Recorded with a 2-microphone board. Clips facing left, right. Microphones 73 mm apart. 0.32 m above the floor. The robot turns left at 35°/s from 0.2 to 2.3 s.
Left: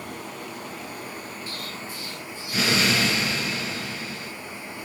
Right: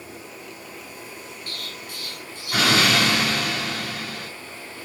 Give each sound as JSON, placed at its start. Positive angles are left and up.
{"t": 0.0, "sound": "running water", "azimuth_deg": 90, "distance_m": 2.0}
{"t": 1.5, "sound": "an explosion", "side_deg": -60, "distance_m": 3.5}